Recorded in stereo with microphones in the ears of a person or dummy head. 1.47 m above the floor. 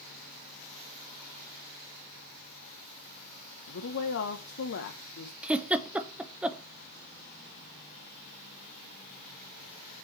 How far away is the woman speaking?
About 0.9 m.